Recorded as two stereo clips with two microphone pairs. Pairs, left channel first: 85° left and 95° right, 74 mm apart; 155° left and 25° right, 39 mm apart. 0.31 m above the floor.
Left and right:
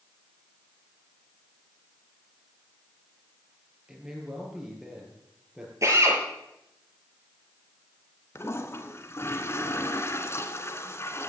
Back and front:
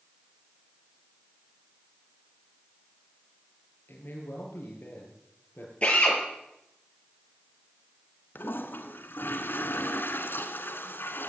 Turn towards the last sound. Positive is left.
turn(degrees=135)